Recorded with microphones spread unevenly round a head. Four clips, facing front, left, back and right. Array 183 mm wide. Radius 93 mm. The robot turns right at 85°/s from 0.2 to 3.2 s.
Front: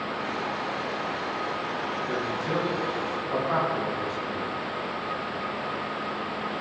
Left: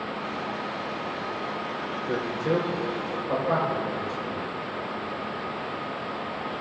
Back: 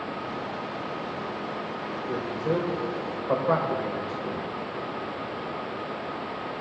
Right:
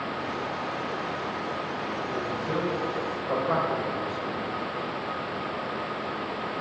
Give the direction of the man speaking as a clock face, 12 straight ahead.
9 o'clock.